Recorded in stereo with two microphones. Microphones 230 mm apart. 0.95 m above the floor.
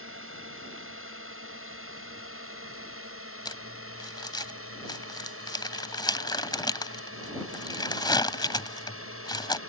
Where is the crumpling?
20° left (ahead or behind).